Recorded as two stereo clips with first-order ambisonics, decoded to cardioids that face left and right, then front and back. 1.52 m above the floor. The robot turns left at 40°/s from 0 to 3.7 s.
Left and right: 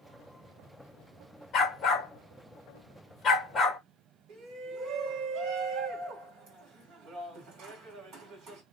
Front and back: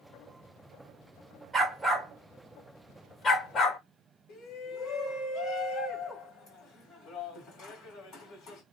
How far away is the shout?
About 1.6 m.